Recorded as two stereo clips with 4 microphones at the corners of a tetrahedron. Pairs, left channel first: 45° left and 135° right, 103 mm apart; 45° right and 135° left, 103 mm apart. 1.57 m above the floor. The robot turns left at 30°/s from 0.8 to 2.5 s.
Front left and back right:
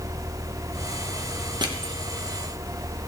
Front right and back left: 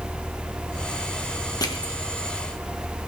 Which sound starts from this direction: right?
Crushing, at 1.6 s.